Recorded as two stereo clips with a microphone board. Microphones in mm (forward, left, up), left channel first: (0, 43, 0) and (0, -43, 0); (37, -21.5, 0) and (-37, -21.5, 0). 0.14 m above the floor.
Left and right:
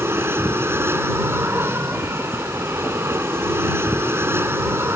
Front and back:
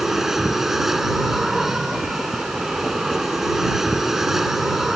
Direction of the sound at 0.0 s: 100° right.